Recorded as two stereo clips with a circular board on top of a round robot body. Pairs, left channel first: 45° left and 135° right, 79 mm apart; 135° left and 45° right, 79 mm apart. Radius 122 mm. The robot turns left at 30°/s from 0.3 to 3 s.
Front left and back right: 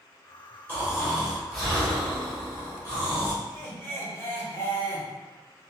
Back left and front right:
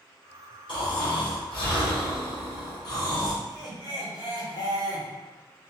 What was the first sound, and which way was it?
Snoring, 160° left.